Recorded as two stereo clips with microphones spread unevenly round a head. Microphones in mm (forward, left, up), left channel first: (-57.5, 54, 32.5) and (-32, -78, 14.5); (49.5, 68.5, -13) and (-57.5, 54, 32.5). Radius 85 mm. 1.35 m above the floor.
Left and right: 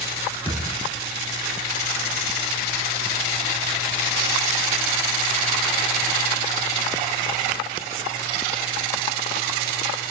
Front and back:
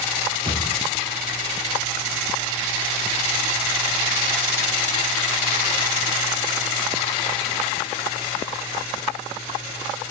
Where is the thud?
150° right, 6.5 m.